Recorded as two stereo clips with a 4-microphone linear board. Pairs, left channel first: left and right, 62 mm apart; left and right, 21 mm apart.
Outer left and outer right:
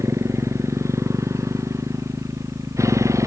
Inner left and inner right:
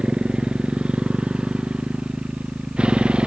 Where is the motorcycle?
50° right (ahead or behind); by 3.3 s 55° right (ahead or behind).